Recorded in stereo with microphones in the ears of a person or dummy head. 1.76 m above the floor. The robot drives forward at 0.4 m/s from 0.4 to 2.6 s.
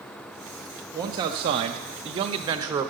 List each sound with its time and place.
0.9 s a man speaking: 20° right (ahead or behind), 0.6 m; by 2.9 s 15° right (ahead or behind), 0.7 m